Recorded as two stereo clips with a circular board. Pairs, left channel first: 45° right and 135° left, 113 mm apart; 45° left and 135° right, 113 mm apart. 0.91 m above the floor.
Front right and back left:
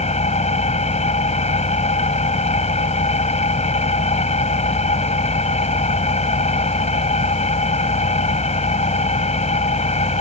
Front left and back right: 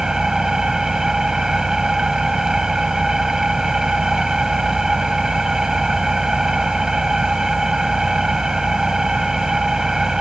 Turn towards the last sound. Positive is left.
turn(degrees=-50)